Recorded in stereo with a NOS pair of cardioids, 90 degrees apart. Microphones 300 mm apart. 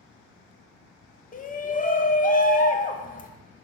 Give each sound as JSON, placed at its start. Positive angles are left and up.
{"t": 1.3, "sound": "a shout", "azimuth_deg": 30, "distance_m": 0.6}